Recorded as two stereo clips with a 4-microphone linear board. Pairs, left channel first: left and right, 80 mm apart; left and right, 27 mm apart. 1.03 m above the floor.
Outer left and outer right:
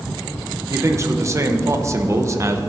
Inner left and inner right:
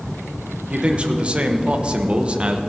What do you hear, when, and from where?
0.7 s a man speaking: 35° right (ahead or behind), 0.9 m